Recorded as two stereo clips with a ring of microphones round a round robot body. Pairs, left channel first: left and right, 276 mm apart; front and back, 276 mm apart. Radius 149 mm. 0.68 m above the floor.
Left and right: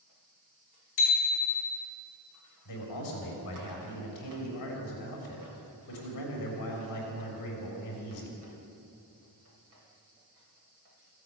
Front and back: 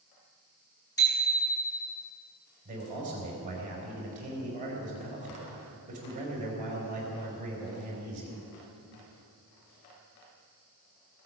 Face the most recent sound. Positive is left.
turn(degrees=115)